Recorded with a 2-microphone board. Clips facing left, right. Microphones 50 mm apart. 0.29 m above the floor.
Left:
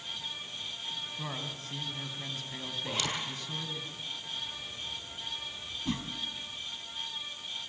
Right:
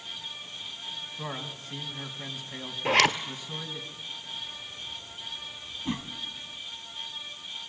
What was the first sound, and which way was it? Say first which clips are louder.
A man speaking: right 2 dB; 10° right (ahead or behind).